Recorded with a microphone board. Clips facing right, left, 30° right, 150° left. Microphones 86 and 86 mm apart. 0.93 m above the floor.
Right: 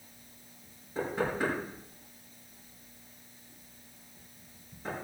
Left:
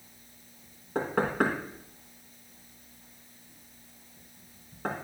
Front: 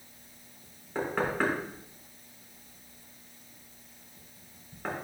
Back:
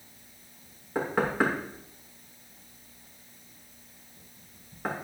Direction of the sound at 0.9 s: 70° left.